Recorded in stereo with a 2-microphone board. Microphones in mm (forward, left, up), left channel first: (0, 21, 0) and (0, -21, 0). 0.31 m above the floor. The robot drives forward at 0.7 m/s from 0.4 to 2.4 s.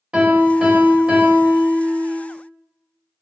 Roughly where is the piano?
Right.